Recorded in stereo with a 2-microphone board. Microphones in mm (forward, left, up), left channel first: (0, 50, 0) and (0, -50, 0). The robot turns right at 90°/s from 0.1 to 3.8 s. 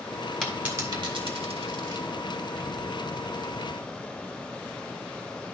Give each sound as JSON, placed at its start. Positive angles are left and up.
{"t": 0.4, "sound": "a dropped coin", "side_deg": 5, "distance_m": 1.8}